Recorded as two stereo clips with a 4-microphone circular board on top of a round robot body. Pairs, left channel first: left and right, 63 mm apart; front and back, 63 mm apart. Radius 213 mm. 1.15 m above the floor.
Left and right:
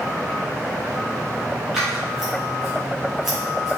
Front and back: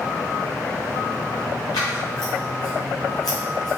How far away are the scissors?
About 0.5 m.